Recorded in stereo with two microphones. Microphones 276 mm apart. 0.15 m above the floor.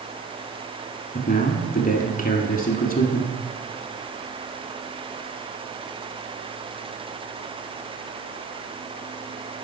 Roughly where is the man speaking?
Left.